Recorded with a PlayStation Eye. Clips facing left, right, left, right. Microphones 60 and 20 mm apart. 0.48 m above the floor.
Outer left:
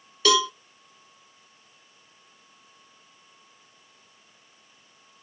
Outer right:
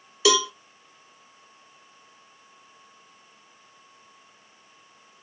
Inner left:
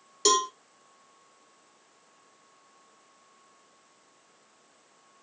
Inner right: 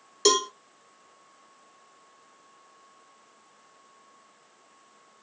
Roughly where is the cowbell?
Centre.